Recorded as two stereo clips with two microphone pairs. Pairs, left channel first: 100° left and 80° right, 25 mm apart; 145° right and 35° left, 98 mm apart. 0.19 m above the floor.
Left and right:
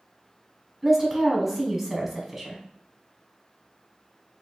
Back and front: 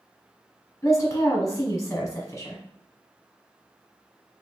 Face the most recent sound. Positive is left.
turn(degrees=-150)